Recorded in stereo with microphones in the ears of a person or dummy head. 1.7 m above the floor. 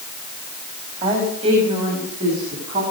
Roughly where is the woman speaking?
Right.